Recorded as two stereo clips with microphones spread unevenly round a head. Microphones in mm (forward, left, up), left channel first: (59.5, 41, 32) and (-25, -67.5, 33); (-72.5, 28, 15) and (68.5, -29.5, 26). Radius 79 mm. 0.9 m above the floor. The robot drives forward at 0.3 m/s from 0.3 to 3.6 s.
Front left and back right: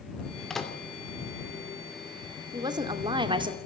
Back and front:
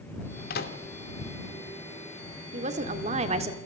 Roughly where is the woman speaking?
Ahead right.